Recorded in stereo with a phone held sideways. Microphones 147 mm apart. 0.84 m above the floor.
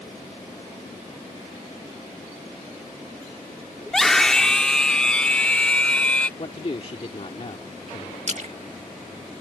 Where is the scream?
5° left (ahead or behind); by 6.3 s 10° left (ahead or behind).